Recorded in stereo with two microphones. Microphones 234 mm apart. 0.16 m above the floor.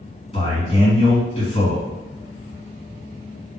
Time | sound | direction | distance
0.3 | a man speaking | 25° left (ahead or behind) | 1.7 m